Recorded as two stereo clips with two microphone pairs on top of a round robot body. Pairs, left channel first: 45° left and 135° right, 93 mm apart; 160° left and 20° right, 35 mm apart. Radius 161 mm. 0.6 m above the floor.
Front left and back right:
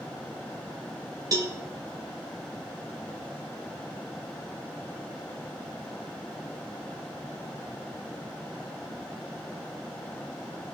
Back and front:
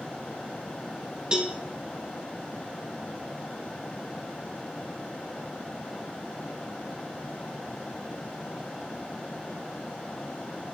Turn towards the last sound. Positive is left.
turn(degrees=-85)